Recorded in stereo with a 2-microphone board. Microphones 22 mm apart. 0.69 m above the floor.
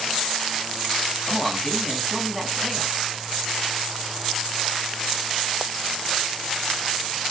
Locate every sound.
1.3 s a man speaking: 5° right (ahead or behind), 4.5 m